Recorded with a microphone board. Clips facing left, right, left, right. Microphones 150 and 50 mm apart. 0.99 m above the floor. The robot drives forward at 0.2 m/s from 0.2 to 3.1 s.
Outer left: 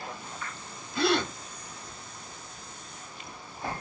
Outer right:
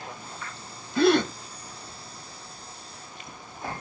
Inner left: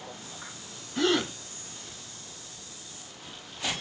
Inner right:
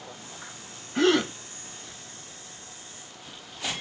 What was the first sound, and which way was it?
A gasp, 45° right (ahead or behind).